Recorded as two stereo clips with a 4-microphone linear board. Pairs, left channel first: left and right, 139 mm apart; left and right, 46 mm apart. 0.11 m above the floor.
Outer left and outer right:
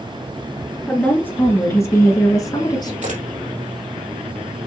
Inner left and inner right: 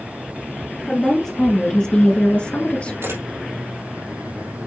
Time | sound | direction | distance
0.9 | a woman speaking | 10° left (ahead or behind) | 2.0 m
3.0 | a camera shutter | 65° right (ahead or behind) | 4 m